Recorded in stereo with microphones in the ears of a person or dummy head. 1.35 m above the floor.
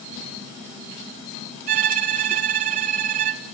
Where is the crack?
I don't hear a crack.